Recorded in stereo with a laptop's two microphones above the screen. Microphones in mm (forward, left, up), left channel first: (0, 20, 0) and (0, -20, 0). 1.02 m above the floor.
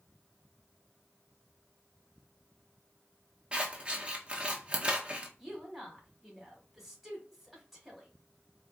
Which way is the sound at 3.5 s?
25° right (ahead or behind).